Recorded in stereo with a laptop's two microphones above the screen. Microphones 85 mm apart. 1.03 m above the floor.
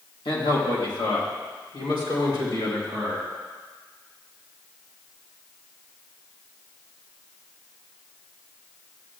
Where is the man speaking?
70° left (ahead or behind), 1.9 m; by 3.3 s 50° left (ahead or behind), 5.5 m.